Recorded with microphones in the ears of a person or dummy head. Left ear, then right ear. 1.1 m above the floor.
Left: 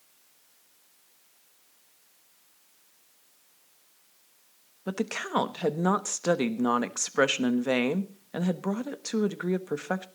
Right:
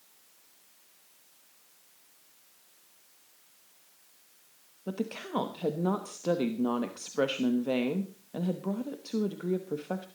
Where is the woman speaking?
55° left (ahead or behind), 1.1 m.